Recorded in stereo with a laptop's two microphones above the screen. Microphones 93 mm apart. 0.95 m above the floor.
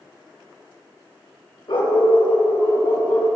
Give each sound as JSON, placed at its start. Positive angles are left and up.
{"t": 1.7, "sound": "a dog barking", "side_deg": 70, "distance_m": 1.6}